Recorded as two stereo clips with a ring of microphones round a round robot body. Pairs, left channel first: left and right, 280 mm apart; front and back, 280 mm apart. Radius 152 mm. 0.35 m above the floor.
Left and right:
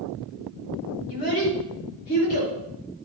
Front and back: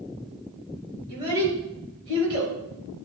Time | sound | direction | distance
1.1 | a child speaking | 100° left | 4.5 m